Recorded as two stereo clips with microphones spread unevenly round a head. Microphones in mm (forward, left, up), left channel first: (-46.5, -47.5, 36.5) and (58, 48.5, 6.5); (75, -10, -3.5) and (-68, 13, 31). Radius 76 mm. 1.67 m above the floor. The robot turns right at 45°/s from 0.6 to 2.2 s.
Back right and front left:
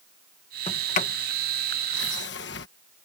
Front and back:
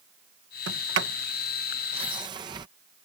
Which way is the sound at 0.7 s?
165° left.